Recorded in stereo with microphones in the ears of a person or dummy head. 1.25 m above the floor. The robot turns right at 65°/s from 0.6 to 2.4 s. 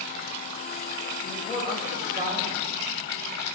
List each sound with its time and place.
1.2 s a man speaking: 150° left, 5.5 m; by 2.6 s 135° right, 5.5 m